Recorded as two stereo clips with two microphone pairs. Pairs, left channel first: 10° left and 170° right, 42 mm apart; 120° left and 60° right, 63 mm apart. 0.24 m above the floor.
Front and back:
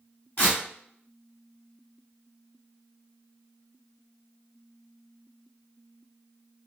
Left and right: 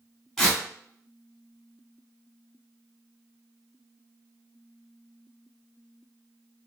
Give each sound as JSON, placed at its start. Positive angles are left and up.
{"t": 0.4, "sound": "tearing paper", "azimuth_deg": 40, "distance_m": 1.5}